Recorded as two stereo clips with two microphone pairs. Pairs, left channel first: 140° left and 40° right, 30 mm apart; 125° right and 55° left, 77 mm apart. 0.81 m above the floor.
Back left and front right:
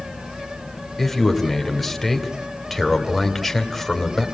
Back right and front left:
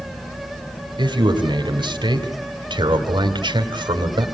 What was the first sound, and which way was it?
A man speaking, 60° left.